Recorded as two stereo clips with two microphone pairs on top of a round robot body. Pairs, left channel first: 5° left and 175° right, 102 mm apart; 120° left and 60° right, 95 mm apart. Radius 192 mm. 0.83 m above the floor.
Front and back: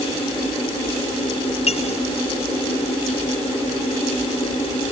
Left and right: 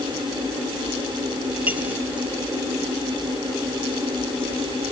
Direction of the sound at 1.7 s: 15° left.